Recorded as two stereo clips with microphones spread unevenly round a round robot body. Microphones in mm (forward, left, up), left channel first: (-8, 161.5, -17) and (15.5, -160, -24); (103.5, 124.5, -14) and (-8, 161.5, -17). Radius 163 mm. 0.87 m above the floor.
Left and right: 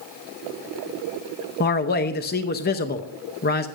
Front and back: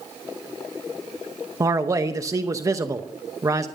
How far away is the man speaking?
About 0.8 m.